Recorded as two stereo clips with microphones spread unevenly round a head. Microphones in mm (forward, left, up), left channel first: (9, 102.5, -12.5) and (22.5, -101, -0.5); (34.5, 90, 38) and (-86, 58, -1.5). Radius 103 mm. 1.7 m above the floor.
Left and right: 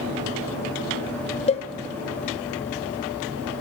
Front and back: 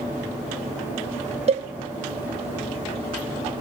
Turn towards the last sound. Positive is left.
turn(degrees=150)